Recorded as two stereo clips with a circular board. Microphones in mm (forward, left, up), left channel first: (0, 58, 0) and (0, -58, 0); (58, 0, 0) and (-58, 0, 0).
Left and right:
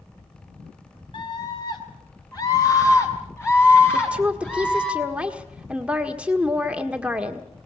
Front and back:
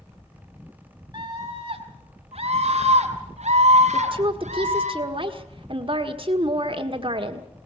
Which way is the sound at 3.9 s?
165° right.